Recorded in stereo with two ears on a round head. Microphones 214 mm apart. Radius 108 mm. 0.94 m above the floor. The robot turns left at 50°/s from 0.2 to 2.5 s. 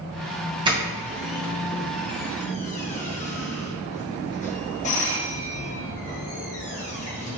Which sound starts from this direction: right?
A doorbell, at 0.7 s.